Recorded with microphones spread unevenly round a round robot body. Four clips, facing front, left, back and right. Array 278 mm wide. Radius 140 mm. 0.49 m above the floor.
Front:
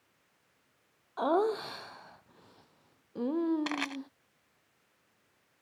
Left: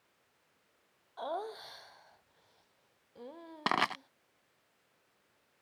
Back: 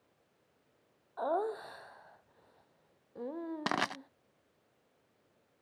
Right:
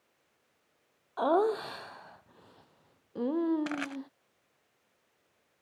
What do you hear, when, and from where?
1.2 s laughter: 55° right
3.7 s crushing: 130° left